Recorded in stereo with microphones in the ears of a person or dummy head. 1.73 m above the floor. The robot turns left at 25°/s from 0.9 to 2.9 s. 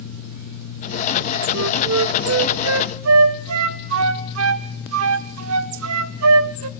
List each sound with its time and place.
1.5 s a flute: 70° right (ahead or behind), 1.3 m; by 6.7 s 75° right (ahead or behind), 1.3 m